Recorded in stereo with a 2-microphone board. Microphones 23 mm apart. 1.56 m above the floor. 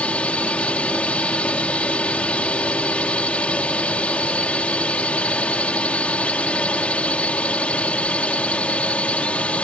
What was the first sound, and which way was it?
A drone, 65° left (ahead or behind).